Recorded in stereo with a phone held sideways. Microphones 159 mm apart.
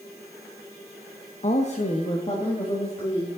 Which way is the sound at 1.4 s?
45° left (ahead or behind).